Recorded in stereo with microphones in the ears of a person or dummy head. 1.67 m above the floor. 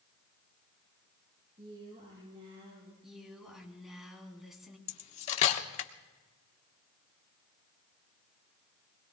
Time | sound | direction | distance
1.6 | a woman speaking | 35° right (ahead or behind) | 5.5 m
3.0 | a woman speaking | centre (ahead or behind) | 3 m
4.9 | cutlery clinking | 40° left (ahead or behind) | 1.0 m